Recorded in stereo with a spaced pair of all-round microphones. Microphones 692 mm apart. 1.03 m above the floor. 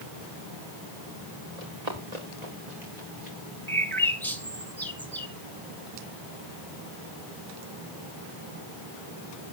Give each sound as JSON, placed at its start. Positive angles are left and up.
{"t": 1.6, "sound": "running footsteps", "side_deg": -65, "distance_m": 5.0}
{"t": 3.7, "sound": "a bird", "side_deg": 5, "distance_m": 1.9}